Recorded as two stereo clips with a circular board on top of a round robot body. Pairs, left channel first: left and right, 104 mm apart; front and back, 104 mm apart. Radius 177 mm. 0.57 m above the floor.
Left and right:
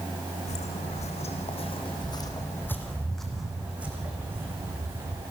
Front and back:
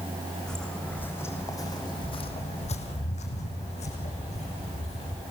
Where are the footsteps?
85° left, 3 m; by 5.2 s 30° right, 4.5 m.